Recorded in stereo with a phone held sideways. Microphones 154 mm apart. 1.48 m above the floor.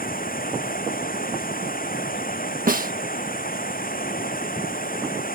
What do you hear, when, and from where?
0.0 s running water: 70° left (ahead or behind)
2.7 s a snare drum: 65° right (ahead or behind)